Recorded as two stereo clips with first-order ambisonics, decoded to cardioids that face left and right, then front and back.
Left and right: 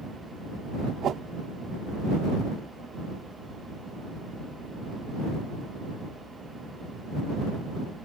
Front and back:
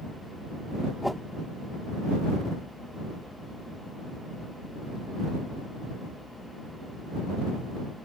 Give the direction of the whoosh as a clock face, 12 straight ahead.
3 o'clock.